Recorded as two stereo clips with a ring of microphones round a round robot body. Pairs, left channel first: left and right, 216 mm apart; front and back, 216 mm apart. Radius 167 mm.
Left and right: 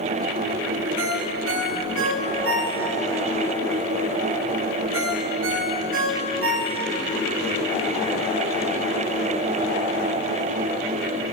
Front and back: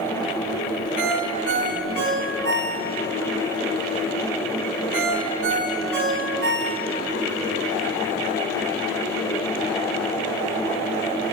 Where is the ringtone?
135° right, 6 m.